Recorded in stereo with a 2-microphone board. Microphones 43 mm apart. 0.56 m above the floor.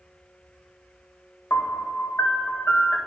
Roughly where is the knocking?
I don't hear knocking.